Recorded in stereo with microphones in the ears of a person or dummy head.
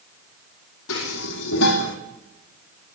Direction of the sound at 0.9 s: 75° left (ahead or behind).